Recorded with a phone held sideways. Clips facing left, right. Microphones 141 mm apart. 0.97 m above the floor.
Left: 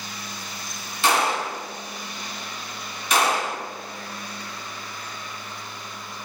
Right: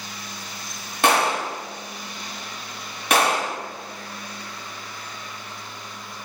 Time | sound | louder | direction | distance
1.0 | a gunshot | right 2 dB | 60° right (ahead or behind) | 0.6 m